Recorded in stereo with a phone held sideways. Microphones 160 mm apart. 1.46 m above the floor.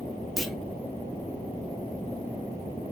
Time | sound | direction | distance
0.4 | a clunk | centre (ahead or behind) | 0.6 m